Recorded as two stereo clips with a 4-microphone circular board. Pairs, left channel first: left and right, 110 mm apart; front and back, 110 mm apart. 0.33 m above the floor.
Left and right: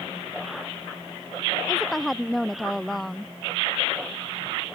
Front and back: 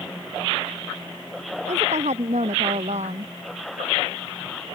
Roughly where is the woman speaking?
Behind.